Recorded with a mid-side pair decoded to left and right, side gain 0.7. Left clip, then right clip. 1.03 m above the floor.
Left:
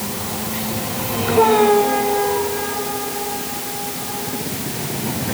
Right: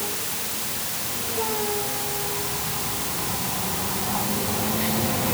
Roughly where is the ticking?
No ticking in this recording.